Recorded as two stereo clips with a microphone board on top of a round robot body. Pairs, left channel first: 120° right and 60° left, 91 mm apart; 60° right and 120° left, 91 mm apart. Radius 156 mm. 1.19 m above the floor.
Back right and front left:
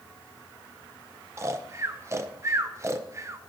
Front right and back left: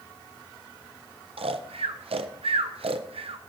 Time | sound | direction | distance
1.4 | snoring | 120° left | 0.5 m